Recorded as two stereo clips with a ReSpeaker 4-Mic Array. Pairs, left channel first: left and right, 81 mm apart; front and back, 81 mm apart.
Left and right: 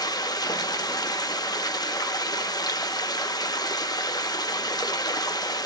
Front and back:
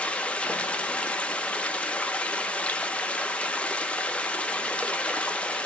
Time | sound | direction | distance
0.0 | running water | 70° left | 0.8 m